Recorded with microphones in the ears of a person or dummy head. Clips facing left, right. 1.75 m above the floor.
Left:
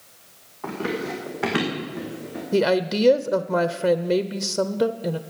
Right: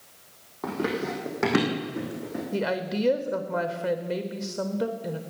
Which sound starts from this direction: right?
Running footsteps, at 0.6 s.